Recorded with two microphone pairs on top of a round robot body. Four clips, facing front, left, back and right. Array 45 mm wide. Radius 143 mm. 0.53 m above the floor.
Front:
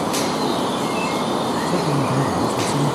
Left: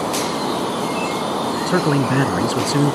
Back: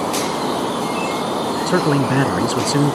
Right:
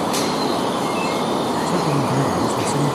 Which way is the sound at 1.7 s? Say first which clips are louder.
Left 2 dB, back 3 dB; 140° left.